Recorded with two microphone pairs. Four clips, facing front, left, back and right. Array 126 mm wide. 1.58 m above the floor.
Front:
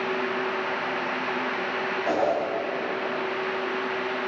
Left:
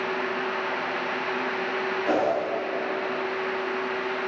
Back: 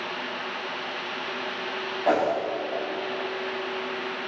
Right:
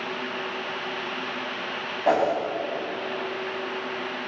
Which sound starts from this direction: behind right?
A whoosh, at 2.0 s.